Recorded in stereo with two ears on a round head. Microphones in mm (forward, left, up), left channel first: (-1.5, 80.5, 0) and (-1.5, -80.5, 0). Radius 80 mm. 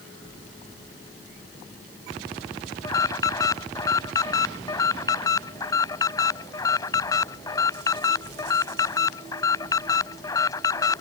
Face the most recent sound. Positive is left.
turn(degrees=20)  # may be behind; listen again after turning